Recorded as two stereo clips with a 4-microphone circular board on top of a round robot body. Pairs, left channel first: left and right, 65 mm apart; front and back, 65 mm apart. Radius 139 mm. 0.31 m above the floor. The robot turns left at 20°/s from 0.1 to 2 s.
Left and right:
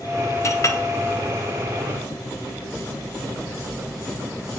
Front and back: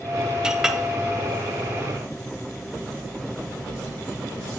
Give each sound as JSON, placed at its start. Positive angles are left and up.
{"t": 0.4, "sound": "a clink", "azimuth_deg": 105, "distance_m": 0.8}